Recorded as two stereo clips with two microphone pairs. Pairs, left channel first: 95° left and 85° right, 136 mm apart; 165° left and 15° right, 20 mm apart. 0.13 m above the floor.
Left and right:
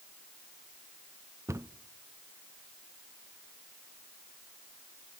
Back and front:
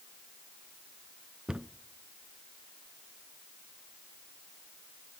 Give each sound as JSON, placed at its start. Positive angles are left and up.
{"t": 1.5, "sound": "a cupboard door", "azimuth_deg": -35, "distance_m": 0.6}